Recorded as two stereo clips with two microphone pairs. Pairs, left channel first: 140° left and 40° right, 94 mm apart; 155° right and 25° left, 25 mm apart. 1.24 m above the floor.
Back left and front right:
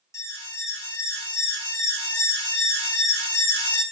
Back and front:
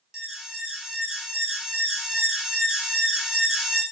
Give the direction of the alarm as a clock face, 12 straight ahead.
9 o'clock.